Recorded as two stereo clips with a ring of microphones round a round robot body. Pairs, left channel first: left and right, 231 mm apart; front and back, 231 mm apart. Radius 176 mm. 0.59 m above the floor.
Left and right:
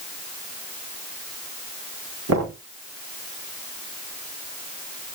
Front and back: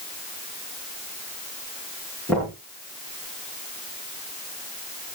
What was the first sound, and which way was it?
Knocking, 90° right.